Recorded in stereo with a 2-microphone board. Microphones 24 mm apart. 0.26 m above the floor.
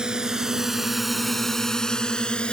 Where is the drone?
35° right (ahead or behind); by 2.5 s 45° left (ahead or behind).